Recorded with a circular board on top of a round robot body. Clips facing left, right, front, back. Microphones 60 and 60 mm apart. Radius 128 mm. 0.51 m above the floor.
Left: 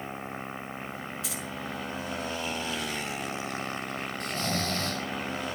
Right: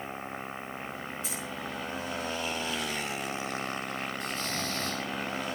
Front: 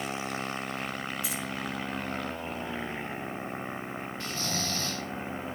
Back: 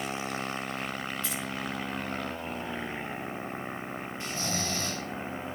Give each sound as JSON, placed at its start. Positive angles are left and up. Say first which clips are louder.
{"t": 1.2, "sound": "keys jangling", "louder": "left 1 dB, even", "azimuth_deg": 75, "distance_m": 6.0}
{"t": 4.2, "sound": "snoring", "louder": "left 3 dB, back 1 dB", "azimuth_deg": 110, "distance_m": 4.0}